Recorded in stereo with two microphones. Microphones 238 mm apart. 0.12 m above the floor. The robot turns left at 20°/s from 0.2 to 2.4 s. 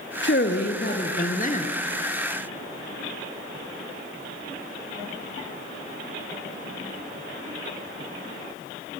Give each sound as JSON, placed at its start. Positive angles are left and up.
{"t": 0.2, "sound": "a man speaking", "side_deg": 50, "distance_m": 2.5}